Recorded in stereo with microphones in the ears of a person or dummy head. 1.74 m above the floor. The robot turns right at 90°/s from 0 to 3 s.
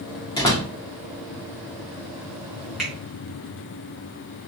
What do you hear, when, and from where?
0.4 s a door slam: 150° left, 0.7 m; by 0.7 s straight behind, 0.7 m
2.8 s a finger snap: 5° right (ahead or behind), 1.3 m; by 2.9 s 5° left (ahead or behind), 1.3 m